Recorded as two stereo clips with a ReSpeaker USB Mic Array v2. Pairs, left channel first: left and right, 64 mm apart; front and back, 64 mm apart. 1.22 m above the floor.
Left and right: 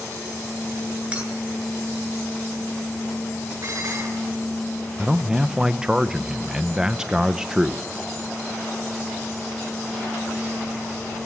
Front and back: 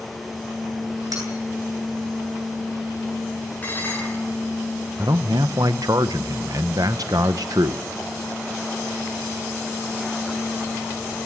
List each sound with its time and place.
1.1 s cutlery clinking: 165° right, 9.5 m
3.6 s dishes clattering: 60° right, 8.5 m
5.0 s a man speaking: 170° right, 0.6 m